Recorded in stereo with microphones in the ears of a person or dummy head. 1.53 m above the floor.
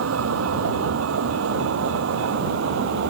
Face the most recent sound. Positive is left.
turn(degrees=-75)  # may be behind; listen again after turning